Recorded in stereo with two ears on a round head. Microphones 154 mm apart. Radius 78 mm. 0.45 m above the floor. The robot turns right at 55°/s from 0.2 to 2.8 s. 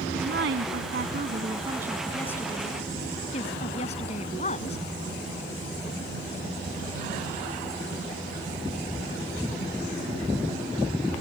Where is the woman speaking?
105° right; by 4.8 s 40° left.